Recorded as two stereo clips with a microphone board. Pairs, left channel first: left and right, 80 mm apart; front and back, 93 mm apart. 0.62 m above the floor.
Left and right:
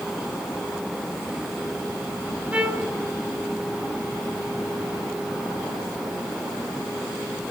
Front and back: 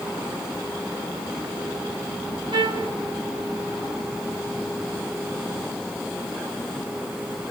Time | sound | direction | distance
2.5 | a trumpet | 160° right | 1.8 m